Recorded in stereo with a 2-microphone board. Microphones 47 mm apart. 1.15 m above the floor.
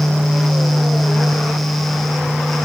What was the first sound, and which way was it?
Only background noise.